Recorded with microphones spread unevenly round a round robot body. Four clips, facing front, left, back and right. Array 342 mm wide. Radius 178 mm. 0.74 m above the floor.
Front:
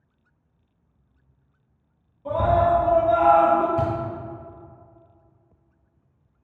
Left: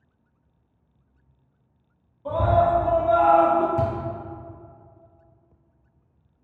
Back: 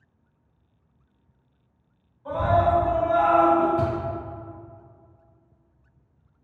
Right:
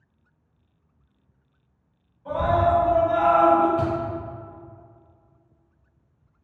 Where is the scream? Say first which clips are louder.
Left 1 dB, front 2 dB; 50° left, 1.5 m.